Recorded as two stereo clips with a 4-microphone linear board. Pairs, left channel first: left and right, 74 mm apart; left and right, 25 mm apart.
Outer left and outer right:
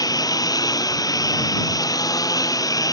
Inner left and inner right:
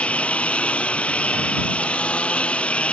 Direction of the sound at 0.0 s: 60° left (ahead or behind).